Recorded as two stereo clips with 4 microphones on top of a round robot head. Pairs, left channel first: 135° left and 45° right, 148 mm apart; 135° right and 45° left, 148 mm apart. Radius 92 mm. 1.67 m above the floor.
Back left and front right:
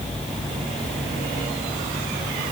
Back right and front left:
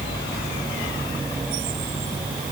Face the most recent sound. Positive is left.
No sound to turn to.